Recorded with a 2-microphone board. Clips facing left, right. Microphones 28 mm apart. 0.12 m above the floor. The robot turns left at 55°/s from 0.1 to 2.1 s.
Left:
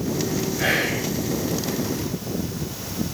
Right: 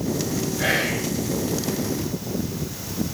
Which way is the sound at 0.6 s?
5° left (ahead or behind).